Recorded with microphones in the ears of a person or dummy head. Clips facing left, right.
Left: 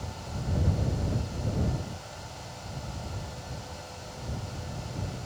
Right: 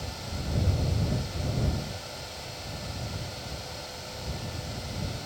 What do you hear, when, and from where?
Only background noise.